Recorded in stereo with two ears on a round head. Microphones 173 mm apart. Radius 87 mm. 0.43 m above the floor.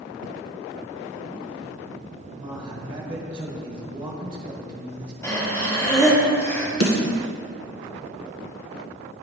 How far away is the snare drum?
About 1.6 m.